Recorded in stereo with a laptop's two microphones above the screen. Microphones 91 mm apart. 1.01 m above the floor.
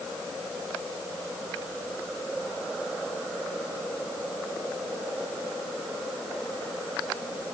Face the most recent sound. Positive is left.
No sound to turn to.